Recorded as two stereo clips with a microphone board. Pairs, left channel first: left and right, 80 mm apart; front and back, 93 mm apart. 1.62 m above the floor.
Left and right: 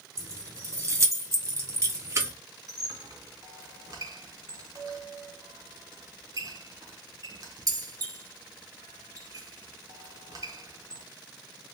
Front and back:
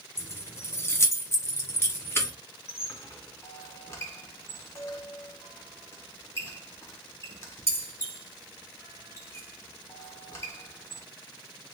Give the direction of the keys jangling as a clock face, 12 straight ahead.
2 o'clock.